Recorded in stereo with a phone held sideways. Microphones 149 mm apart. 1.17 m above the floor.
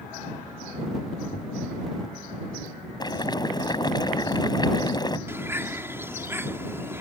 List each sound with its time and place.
1.3 s a thud: 70° left (ahead or behind)
3.0 s boiling: 30° left (ahead or behind)
5.3 s a bird: 15° right (ahead or behind)